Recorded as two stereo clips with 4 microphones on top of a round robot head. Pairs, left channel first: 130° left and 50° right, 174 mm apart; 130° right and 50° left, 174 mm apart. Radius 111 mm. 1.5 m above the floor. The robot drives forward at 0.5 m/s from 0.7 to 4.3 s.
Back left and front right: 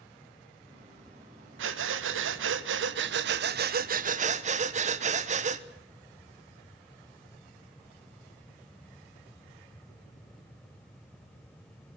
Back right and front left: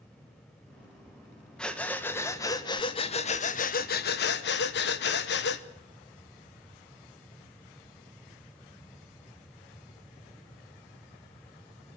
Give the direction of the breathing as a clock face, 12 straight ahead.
1 o'clock.